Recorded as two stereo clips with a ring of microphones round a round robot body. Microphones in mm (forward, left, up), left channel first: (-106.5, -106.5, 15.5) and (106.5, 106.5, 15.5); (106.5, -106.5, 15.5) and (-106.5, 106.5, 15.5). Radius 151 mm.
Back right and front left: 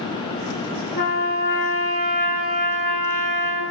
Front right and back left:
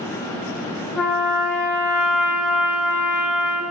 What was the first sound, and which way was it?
A trumpet, 130° right.